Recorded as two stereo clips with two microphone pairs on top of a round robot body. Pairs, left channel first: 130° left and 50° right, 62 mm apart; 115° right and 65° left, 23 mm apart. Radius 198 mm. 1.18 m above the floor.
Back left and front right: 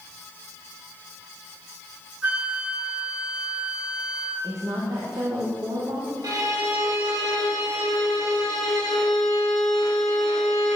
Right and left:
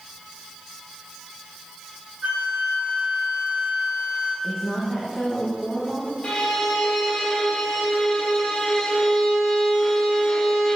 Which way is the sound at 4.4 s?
30° right.